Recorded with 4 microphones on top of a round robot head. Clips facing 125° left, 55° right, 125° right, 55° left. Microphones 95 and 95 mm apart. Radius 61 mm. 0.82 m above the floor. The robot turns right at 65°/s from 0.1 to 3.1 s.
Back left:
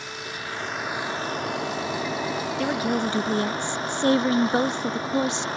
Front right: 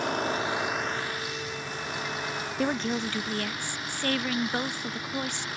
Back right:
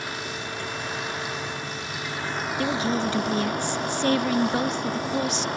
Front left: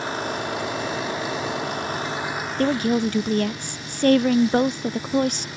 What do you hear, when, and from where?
0.0 s a vehicle: 10° right; by 5.6 s 175° right
2.6 s a woman speaking: 30° left; by 5.5 s 65° left